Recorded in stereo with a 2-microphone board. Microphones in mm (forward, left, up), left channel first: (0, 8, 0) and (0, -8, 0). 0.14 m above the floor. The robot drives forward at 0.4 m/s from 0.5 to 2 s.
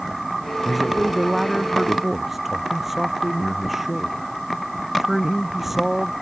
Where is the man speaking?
15° right (ahead or behind).